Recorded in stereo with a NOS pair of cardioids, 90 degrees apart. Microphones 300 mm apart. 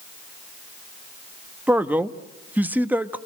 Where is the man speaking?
5° right, 1.4 m.